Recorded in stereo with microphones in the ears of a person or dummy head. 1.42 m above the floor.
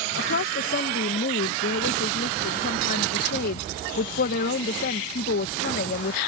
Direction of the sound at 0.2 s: 50° left (ahead or behind).